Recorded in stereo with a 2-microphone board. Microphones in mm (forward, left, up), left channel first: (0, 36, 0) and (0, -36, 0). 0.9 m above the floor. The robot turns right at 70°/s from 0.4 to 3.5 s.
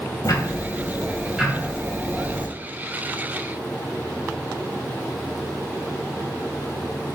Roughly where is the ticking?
Behind left.